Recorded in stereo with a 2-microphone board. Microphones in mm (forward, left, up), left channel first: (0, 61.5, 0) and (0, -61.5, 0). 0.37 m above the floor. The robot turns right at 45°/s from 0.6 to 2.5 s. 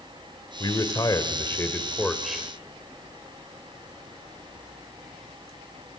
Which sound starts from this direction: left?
A man speaking, at 0.6 s.